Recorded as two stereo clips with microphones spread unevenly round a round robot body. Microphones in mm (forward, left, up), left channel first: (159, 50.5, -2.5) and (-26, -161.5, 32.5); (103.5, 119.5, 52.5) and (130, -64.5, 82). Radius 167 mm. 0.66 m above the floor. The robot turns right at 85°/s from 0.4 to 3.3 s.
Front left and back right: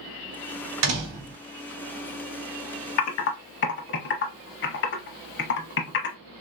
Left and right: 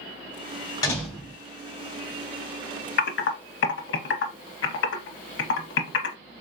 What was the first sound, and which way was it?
A door slam, 175° left.